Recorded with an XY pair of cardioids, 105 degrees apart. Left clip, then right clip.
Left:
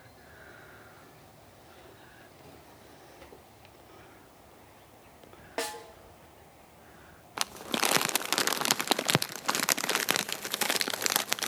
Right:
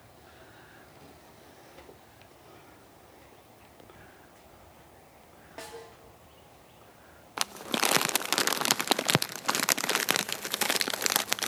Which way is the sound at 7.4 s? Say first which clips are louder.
Right 1 dB; 10° right.